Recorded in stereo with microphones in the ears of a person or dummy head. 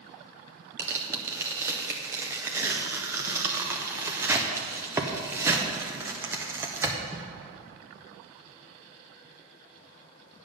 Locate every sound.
0.8 s tearing paper: 5° right (ahead or behind), 0.7 m